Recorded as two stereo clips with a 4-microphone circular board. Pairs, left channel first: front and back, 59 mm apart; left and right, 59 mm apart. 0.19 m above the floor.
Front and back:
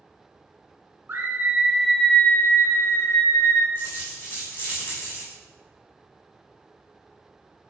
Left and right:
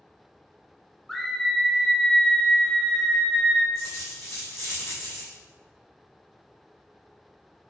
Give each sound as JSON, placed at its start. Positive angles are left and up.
{"t": 1.1, "sound": "a scream", "azimuth_deg": 175, "distance_m": 1.3}
{"t": 3.8, "sound": "a dropped coin", "azimuth_deg": 55, "distance_m": 4.5}